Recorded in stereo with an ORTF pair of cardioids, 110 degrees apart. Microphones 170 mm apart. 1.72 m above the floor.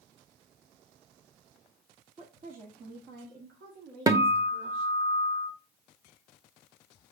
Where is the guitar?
20° right, 1.0 m.